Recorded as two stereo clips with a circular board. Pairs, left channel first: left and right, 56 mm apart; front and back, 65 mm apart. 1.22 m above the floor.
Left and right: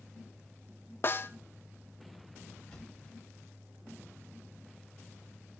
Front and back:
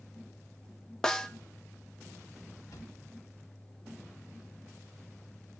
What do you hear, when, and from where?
1.0 s a snare drum: 75° left, 0.6 m
2.7 s a drawer: 15° left, 2.5 m